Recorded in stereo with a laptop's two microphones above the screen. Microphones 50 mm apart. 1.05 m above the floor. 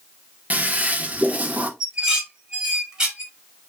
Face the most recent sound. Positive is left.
turn(degrees=-10)  # may be behind; listen again after turning